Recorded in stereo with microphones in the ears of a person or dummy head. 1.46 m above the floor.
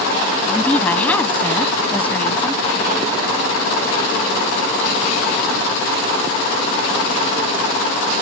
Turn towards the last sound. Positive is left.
turn(degrees=15)  # may be behind; listen again after turning